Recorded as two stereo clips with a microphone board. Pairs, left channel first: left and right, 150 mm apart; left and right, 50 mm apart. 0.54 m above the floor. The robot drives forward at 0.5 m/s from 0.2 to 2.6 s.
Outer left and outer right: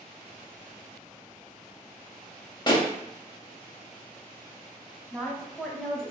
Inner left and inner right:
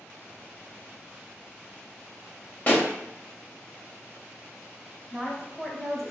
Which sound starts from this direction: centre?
A woman speaking, at 5.1 s.